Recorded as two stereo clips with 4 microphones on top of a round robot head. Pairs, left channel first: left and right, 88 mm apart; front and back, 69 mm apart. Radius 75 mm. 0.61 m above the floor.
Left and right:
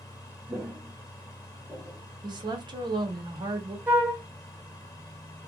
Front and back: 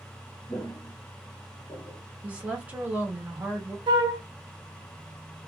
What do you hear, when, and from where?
0.5 s footsteps: 40° right, 0.6 m; by 2.0 s straight ahead, 1.2 m
2.2 s a woman speaking: 110° right, 1.1 m
3.9 s a flute: 165° right, 0.6 m